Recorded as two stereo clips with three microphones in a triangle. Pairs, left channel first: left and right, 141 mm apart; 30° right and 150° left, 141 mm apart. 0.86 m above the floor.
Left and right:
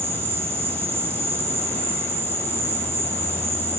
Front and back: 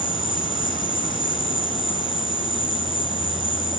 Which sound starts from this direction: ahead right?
An insect, at 0.0 s.